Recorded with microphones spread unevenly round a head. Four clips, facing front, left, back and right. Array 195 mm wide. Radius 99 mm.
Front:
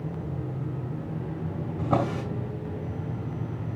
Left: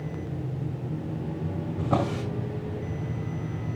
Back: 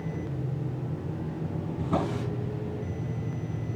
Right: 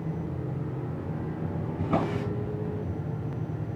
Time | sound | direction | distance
1.8 | a drawer | 35° left | 5.5 m